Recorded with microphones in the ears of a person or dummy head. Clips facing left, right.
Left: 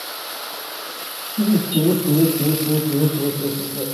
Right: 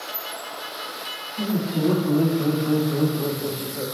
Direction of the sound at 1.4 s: 45° left (ahead or behind).